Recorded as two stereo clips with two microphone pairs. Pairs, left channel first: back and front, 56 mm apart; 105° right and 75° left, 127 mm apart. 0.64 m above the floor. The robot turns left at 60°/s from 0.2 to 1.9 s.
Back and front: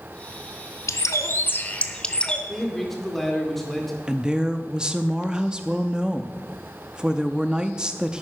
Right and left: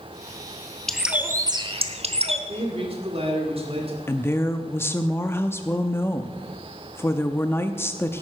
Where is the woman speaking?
60° right, 0.5 m.